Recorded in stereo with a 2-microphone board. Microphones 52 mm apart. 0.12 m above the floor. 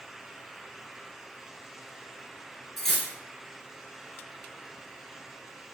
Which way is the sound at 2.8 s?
5° left (ahead or behind).